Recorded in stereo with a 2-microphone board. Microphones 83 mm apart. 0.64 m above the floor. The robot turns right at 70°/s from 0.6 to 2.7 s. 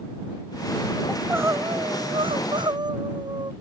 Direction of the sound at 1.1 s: 175° right.